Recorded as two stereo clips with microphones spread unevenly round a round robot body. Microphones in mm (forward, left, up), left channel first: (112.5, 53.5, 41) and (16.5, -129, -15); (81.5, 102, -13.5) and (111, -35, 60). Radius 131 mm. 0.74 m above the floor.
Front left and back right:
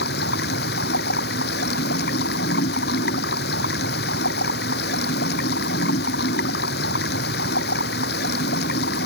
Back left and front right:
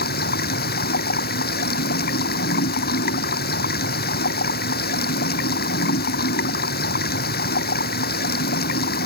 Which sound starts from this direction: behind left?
Running water, at 0.0 s.